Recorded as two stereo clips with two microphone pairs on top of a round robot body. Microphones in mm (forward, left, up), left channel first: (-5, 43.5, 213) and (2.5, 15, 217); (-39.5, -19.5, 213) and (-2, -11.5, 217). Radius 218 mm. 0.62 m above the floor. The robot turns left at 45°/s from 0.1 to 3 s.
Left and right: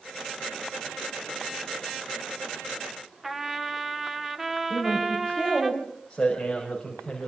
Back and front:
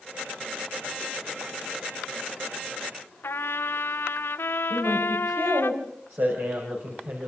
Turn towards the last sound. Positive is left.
turn(degrees=30)